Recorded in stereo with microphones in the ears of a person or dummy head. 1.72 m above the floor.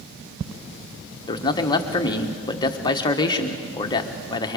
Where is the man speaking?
25° left (ahead or behind), 1.3 m.